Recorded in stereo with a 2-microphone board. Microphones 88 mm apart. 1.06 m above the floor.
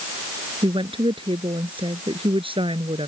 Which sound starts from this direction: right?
A woman speaking, at 0.6 s.